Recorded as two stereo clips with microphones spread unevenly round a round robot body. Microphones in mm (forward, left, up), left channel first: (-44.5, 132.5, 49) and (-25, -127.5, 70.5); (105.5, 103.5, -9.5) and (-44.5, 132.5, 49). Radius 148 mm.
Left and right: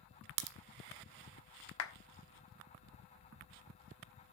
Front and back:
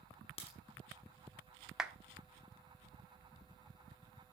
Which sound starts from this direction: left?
A clap, at 1.8 s.